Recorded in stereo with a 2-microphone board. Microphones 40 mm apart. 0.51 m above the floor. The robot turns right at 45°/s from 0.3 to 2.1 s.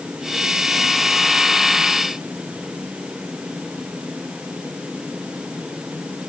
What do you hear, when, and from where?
Only background noise.